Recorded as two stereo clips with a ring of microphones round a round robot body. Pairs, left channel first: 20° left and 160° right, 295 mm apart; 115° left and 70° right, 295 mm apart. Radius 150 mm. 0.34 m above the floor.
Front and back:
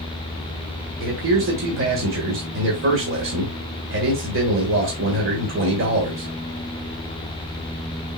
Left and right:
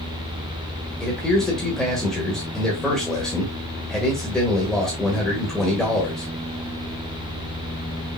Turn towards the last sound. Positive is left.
turn(degrees=-160)